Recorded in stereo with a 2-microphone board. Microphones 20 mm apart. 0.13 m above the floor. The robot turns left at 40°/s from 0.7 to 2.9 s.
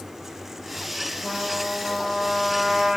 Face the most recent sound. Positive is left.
turn(degrees=-140)